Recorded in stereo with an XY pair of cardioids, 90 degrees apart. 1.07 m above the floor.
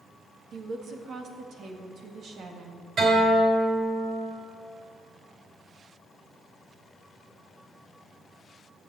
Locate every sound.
0.5 s a woman speaking: 70° right, 1.7 m
3.0 s a guitar: 55° right, 4.5 m